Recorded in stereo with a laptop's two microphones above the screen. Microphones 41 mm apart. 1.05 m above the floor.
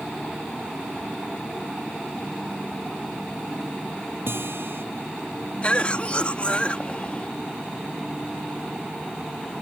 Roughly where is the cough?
Left.